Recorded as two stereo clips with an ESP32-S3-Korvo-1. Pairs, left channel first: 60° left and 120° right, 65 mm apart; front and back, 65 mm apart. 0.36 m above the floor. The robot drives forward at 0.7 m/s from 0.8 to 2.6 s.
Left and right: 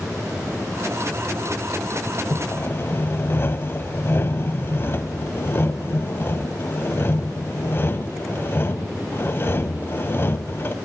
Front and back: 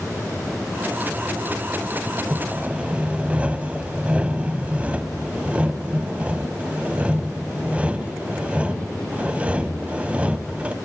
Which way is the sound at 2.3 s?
95° left.